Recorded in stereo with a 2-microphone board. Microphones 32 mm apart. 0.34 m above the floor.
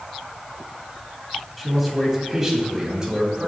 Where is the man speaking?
Centre (ahead or behind), 2.5 m; by 3.5 s 25° right (ahead or behind), 3 m.